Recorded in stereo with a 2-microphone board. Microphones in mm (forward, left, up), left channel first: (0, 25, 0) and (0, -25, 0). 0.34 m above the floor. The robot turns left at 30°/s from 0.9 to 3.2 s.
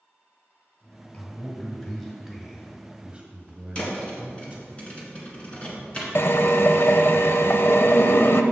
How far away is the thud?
About 1.8 m.